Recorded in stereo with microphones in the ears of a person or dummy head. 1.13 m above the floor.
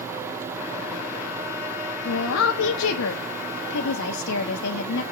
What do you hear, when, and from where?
2.0 s a woman speaking: 80° left, 0.7 m